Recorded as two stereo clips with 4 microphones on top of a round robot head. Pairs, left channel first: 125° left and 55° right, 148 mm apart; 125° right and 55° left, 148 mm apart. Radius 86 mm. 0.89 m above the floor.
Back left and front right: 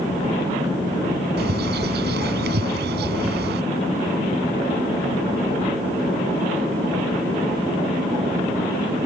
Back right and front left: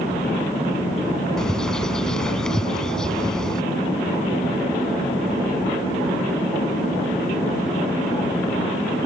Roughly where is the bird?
Ahead right.